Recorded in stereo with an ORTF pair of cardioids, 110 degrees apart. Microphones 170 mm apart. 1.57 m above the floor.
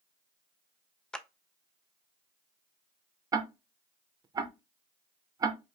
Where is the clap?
5° left, 0.5 m.